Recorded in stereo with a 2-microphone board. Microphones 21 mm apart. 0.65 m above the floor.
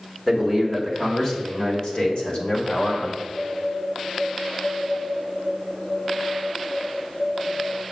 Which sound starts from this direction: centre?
A man speaking, at 0.3 s.